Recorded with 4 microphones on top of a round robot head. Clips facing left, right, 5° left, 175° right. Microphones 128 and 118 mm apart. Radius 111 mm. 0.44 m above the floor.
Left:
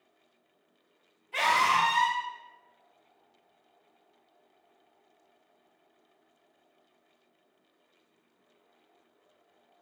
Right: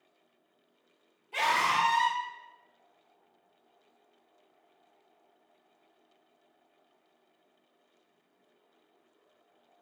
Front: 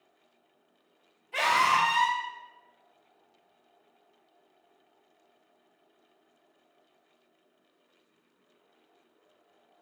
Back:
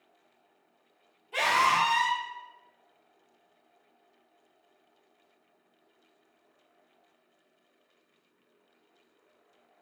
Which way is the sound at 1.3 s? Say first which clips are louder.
Left 2 dB, even; 125° right.